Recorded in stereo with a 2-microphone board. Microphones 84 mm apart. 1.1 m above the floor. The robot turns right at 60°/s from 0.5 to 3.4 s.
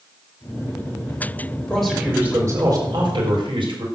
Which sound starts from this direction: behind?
A man speaking, at 1.7 s.